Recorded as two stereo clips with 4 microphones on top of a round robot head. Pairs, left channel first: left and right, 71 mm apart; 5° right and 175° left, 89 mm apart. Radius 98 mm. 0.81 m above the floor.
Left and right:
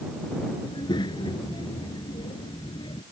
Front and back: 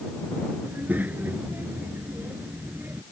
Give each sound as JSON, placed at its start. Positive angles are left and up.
{"t": 0.6, "sound": "a child speaking", "azimuth_deg": 105}